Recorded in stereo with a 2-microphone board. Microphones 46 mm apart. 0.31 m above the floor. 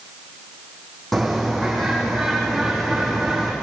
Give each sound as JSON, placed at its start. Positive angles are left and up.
{"t": 1.1, "sound": "a bird", "side_deg": 5, "distance_m": 7.5}